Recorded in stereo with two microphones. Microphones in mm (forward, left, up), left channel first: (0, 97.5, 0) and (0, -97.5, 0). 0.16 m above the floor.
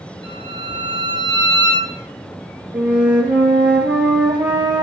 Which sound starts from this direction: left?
A violin, at 0.2 s.